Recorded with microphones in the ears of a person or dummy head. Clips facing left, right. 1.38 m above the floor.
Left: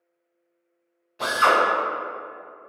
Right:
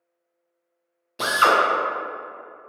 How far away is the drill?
About 0.8 m.